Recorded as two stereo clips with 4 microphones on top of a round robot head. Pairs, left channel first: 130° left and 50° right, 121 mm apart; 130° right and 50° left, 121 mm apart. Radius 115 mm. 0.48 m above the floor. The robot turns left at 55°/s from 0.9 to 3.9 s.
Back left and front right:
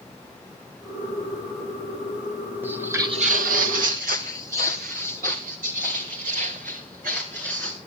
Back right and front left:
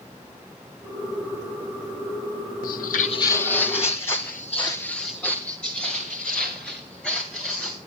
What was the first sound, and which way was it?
Footsteps, 125° right.